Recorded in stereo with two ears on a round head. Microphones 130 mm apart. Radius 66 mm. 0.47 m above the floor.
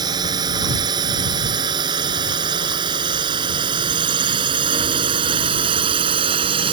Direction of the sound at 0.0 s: 30° right (ahead or behind).